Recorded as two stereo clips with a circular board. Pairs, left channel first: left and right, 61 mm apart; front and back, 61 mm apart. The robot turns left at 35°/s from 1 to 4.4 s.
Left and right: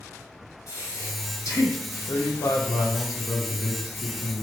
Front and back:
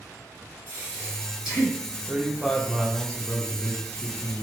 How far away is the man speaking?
About 0.6 m.